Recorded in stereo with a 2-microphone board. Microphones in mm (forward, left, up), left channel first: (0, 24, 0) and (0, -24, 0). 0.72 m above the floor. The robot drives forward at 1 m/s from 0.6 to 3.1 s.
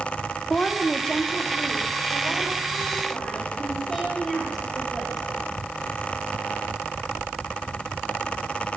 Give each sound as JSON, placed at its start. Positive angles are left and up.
{"t": 0.5, "sound": "a woman speaking", "side_deg": 20, "distance_m": 0.7}